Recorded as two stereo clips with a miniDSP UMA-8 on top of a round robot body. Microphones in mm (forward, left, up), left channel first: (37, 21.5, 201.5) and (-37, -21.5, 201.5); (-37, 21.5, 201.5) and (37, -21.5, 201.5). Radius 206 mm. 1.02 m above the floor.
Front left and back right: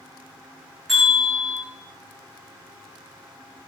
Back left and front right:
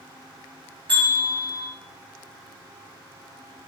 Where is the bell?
60° right, 0.6 m.